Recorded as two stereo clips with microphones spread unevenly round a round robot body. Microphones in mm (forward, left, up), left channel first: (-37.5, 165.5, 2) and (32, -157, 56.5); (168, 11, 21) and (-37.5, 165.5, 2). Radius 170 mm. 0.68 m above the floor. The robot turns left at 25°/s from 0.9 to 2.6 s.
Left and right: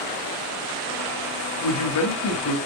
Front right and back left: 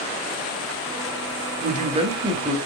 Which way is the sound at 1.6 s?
90° left.